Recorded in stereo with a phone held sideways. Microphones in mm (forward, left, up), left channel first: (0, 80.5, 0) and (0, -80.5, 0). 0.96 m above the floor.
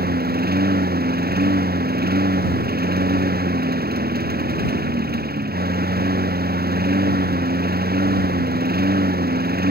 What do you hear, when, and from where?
0.0 s a lawn mower: 90° right